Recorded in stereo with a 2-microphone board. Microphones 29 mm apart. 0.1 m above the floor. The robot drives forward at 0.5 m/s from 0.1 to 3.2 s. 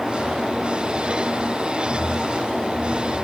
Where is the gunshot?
No gunshot in this recording.